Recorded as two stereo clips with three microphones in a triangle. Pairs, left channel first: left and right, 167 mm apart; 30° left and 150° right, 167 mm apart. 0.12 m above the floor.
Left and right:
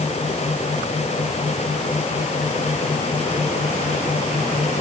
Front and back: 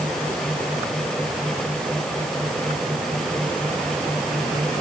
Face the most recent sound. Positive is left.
No sound to turn to.